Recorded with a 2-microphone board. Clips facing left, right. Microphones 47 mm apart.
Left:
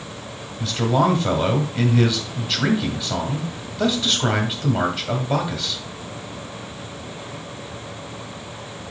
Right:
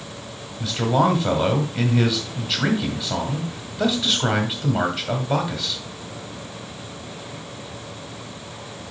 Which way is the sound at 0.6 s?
5° right (ahead or behind).